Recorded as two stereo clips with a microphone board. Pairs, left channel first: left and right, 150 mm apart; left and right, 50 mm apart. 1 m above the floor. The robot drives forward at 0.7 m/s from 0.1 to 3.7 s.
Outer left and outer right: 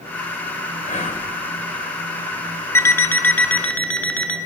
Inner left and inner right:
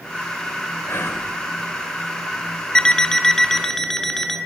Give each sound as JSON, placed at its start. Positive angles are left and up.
{"t": 0.9, "sound": "whispering", "side_deg": 55, "distance_m": 3.5}
{"t": 2.8, "sound": "an alarm clock", "side_deg": 15, "distance_m": 0.6}